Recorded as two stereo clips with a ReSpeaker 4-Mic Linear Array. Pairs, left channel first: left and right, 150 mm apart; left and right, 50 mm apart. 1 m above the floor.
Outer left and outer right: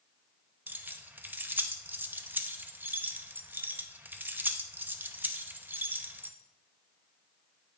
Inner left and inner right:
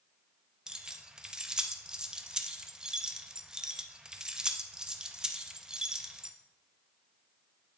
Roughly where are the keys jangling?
Centre.